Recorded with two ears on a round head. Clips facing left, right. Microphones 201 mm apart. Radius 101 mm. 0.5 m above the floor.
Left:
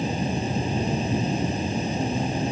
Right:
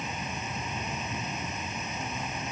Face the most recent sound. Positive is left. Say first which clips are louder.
# left 12 dB
turn(degrees=30)  # may be behind; listen again after turning